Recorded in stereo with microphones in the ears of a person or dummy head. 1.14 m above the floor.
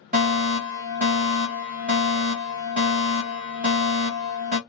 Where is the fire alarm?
35° right (ahead or behind), 1.8 m.